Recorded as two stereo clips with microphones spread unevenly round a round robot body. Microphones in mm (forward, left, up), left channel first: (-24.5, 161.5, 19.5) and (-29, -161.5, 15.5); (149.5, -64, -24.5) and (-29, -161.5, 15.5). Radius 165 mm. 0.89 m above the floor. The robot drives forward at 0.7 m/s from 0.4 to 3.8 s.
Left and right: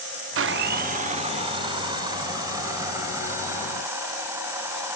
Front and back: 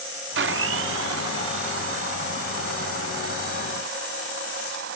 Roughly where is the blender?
Behind right.